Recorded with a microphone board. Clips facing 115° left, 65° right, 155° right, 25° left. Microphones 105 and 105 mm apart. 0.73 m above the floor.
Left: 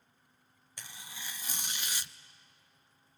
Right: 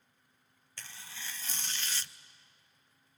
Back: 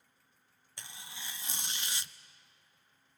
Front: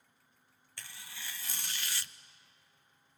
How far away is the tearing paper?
About 0.5 m.